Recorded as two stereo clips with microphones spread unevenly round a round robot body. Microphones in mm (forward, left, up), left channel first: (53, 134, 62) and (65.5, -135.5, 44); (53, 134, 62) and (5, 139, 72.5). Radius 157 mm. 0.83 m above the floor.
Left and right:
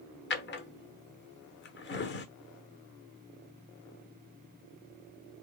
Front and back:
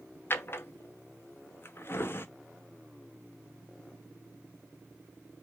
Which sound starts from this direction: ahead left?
A drawer, at 0.3 s.